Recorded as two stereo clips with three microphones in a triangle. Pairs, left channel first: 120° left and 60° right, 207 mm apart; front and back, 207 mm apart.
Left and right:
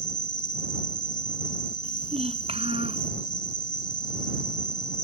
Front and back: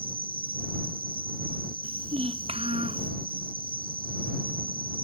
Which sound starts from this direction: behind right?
A child speaking, at 1.8 s.